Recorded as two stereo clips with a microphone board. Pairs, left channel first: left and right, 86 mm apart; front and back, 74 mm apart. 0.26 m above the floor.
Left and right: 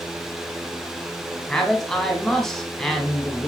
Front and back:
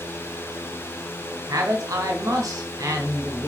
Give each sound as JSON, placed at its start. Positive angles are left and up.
{"t": 1.5, "sound": "a man speaking", "azimuth_deg": 175, "distance_m": 2.0}